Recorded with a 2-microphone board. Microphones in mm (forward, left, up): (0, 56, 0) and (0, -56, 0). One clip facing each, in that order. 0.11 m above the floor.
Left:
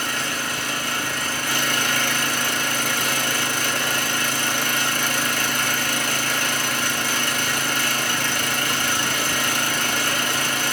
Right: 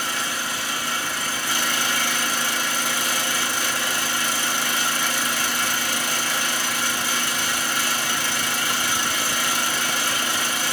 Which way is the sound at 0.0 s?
60° left (ahead or behind).